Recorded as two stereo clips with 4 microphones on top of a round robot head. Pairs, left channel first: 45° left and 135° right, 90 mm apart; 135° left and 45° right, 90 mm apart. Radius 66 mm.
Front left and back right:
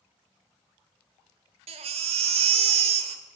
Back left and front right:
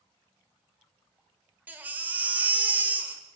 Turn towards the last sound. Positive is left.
turn(degrees=-120)